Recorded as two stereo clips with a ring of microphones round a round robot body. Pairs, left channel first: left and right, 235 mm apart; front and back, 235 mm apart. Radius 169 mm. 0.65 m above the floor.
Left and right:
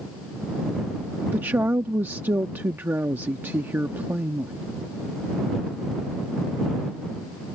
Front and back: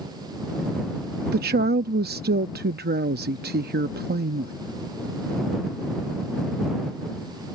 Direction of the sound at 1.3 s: 170° right.